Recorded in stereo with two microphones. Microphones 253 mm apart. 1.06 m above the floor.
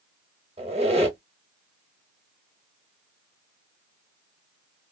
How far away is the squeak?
About 0.9 m.